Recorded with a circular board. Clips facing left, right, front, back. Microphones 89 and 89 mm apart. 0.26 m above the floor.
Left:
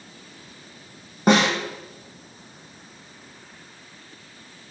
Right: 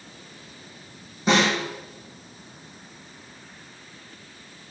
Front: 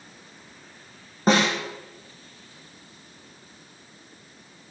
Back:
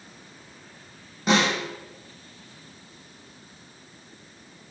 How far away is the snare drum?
About 4.5 m.